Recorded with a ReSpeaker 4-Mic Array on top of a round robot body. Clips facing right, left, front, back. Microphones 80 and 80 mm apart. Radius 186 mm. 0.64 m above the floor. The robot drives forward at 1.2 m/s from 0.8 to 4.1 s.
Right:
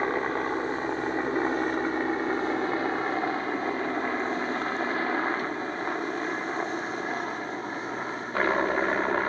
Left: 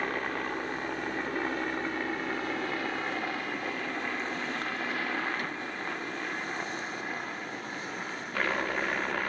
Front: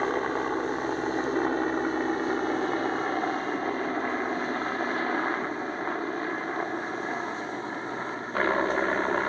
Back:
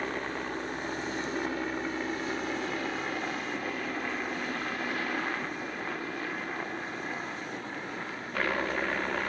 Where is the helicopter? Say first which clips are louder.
Right 5 dB, front 7 dB; 35° right; by 9.3 s 40° right.